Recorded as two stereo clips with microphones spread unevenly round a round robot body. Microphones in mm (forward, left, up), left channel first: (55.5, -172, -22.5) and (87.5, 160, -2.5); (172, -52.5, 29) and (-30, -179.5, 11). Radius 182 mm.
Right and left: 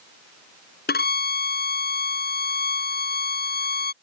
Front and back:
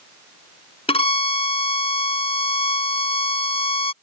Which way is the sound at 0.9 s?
35° right.